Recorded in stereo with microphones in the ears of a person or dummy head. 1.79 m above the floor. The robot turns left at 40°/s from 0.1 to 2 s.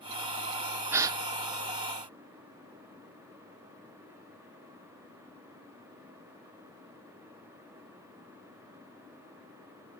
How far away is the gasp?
About 1.1 m.